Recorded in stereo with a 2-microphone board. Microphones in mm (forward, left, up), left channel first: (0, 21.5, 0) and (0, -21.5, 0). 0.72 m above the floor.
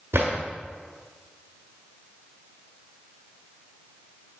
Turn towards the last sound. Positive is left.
turn(degrees=-85)